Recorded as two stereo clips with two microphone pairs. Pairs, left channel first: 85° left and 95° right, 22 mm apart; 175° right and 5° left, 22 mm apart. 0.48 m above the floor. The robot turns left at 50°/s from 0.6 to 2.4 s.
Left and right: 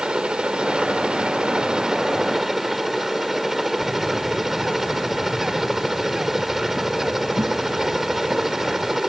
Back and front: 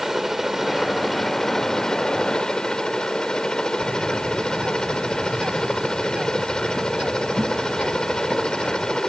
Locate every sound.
0.0 s a helicopter: 75° right; by 9.1 s 165° right
3.8 s a bird: 30° right